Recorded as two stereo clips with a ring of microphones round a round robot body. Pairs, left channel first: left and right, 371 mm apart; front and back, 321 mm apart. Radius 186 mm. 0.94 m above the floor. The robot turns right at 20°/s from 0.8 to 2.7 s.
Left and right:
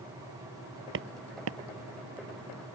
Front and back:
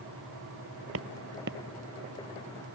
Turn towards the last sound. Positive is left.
turn(degrees=-105)